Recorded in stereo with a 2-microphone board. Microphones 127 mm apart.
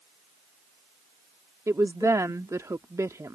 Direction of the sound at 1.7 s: 25° right (ahead or behind).